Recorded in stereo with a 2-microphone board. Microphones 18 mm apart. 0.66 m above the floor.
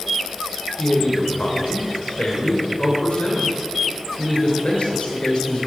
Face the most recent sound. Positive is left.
turn(degrees=70)  # may be behind; listen again after turning